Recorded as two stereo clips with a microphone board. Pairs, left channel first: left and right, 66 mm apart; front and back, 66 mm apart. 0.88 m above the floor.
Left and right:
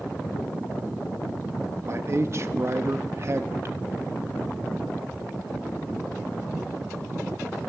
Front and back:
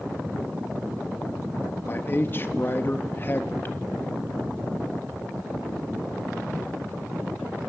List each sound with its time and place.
1.9 s a man speaking: 50° right, 1.2 m